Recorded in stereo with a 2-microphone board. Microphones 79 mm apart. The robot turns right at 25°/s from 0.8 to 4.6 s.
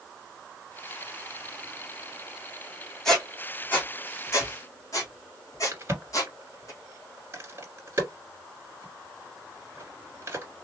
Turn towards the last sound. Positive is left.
turn(degrees=-30)  # may be behind; listen again after turning